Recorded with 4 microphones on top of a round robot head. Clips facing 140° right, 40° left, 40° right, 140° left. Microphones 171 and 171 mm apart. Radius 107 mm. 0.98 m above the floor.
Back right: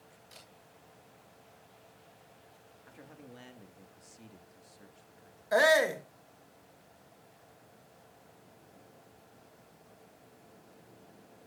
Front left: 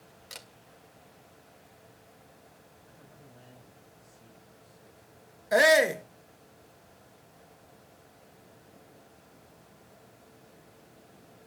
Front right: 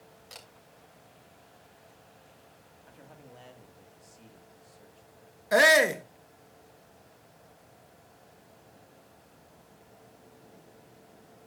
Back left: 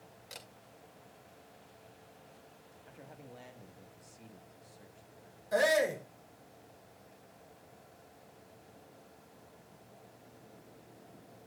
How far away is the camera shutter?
About 1.9 m.